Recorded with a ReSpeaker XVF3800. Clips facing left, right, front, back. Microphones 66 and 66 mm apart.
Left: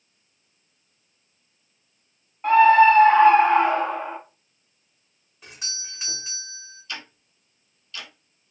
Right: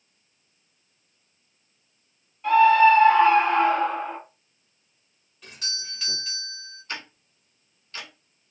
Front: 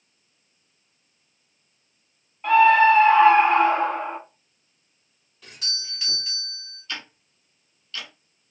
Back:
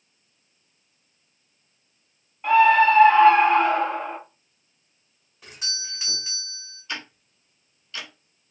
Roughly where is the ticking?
Behind right.